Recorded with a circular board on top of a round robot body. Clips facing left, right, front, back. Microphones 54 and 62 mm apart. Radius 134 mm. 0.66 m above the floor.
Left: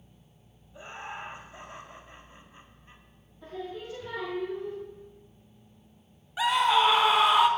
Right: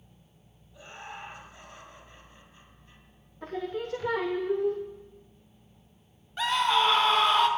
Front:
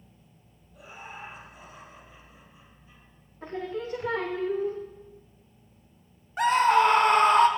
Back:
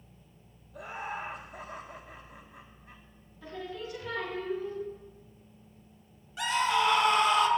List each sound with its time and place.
0.7 s laughter: 150° left, 1.5 m
3.4 s singing: 55° right, 0.8 m
6.4 s a scream: 10° left, 1.4 m